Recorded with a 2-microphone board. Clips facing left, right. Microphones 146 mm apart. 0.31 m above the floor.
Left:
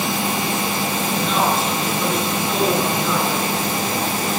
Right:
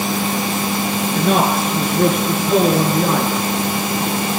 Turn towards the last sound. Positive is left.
turn(degrees=-55)  # may be behind; listen again after turning